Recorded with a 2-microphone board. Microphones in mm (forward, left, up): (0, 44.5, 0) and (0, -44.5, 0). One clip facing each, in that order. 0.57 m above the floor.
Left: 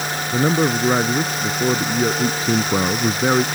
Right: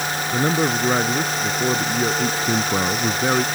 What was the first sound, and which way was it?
A man speaking, 5° left (ahead or behind).